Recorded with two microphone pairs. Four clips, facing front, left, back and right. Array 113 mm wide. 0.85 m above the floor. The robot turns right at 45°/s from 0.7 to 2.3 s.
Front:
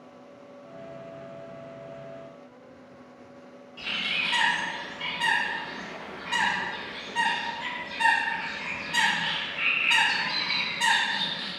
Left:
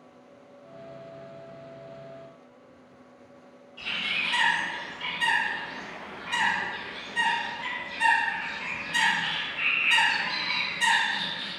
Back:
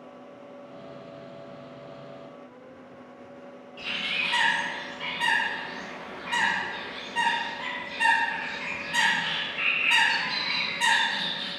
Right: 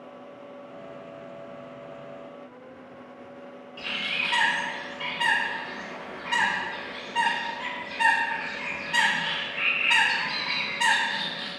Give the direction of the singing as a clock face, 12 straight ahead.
I don't hear singing.